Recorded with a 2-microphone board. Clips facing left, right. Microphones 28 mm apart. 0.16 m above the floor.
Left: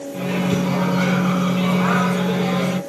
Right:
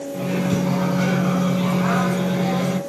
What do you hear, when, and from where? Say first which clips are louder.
0.1 s a microwave: left 1 dB; 20° left (ahead or behind), 0.9 m